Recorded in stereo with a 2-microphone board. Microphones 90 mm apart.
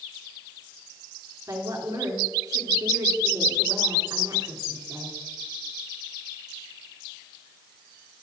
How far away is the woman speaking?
About 3 m.